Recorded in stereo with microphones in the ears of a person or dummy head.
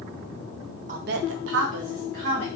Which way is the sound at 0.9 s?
40° right (ahead or behind).